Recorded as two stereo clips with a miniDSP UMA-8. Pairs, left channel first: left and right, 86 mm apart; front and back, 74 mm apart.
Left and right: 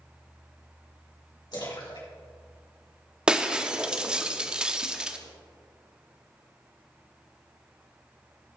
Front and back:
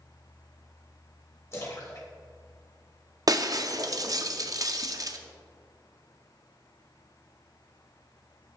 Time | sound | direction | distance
1.5 | a splash | 55° left | 3 m
3.3 | breaking glass | 165° right | 0.6 m